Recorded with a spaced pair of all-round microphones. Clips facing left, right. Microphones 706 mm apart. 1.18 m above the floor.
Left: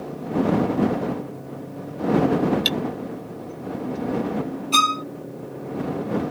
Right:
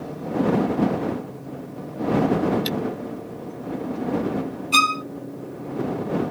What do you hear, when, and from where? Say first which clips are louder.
2.6 s cutlery clinking: even; 80° left
4.7 s a violin: even; centre (ahead or behind)